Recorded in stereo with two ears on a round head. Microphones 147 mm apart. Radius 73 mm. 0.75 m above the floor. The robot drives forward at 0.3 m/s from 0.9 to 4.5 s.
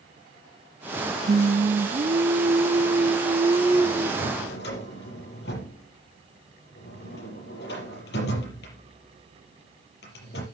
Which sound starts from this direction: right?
Singing, at 1.3 s.